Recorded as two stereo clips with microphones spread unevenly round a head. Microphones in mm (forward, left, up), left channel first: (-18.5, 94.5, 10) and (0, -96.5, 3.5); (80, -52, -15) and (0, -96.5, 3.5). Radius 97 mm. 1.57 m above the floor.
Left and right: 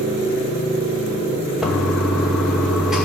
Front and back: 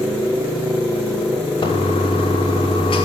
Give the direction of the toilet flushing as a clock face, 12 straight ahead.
12 o'clock.